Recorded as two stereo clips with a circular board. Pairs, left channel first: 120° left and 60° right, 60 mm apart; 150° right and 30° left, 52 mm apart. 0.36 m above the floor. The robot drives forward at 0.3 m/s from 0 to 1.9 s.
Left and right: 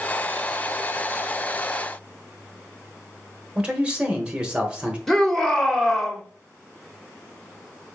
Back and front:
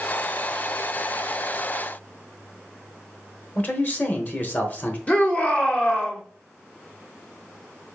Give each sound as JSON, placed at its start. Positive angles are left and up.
{"t": 3.5, "sound": "a man speaking", "azimuth_deg": -120, "distance_m": 1.0}
{"t": 5.1, "sound": "a shout", "azimuth_deg": -160, "distance_m": 0.8}